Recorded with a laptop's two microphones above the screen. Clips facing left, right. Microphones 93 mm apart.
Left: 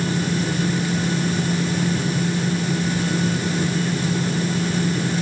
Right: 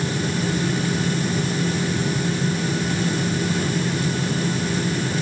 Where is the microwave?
No microwave in this recording.